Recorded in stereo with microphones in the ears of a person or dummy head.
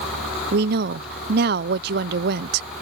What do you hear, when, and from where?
0.5 s a woman speaking: 60° right (ahead or behind)